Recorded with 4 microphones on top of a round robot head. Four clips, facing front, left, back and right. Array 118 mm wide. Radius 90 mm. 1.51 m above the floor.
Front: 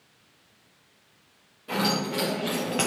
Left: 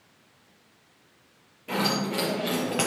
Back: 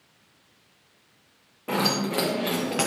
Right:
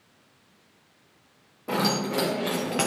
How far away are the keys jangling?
About 0.9 m.